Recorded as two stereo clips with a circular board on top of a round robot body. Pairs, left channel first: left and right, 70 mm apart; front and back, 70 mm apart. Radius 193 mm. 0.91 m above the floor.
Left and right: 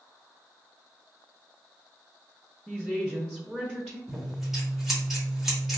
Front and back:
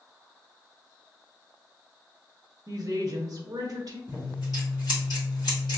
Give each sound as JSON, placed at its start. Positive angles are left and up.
{"t": 2.7, "sound": "a woman speaking", "azimuth_deg": -170, "distance_m": 0.9}
{"t": 4.1, "sound": "scissors", "azimuth_deg": 0, "distance_m": 1.6}